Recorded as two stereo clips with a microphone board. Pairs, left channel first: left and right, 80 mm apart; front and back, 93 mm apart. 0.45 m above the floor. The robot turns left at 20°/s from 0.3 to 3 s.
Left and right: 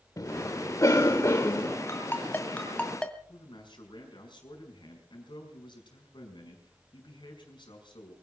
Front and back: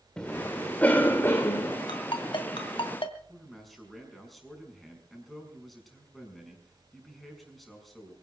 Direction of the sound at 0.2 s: 80° left.